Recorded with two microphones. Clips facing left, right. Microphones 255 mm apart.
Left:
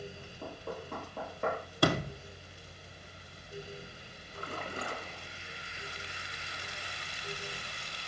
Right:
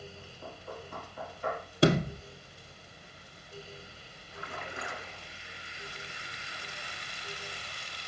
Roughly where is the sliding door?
Right.